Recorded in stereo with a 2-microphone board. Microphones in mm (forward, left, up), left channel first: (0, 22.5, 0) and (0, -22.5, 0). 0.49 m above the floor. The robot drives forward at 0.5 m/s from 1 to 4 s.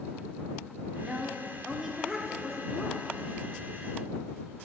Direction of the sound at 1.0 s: 10° right (ahead or behind).